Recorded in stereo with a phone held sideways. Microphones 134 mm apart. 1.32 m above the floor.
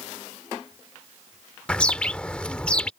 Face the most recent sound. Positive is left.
turn(degrees=10)  # may be behind; listen again after turning